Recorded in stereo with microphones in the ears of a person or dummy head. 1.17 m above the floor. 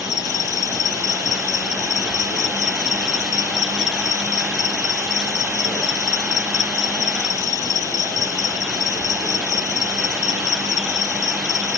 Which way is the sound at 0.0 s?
20° left (ahead or behind).